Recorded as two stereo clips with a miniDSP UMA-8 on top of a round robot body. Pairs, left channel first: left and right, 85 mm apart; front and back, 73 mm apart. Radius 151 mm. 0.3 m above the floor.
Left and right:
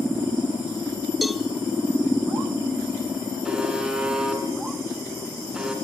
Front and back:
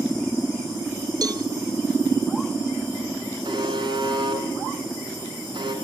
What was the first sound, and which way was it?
A cowbell, straight behind.